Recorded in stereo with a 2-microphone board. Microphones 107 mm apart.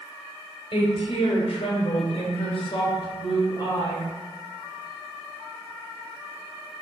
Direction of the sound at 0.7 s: 55° left (ahead or behind).